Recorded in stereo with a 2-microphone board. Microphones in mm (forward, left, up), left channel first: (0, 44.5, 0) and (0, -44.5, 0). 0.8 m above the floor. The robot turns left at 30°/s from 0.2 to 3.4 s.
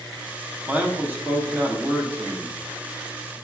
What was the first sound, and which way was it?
A man speaking, 20° right (ahead or behind).